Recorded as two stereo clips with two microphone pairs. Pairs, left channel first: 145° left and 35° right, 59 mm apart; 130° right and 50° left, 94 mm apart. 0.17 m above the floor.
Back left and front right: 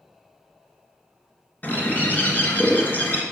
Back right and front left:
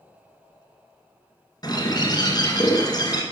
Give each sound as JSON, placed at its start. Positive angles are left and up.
{"t": 1.6, "sound": "a bird", "azimuth_deg": -160, "distance_m": 1.8}